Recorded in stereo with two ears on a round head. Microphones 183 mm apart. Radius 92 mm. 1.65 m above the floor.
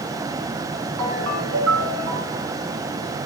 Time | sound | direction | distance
1.0 | a ringtone | 80° right | 7 m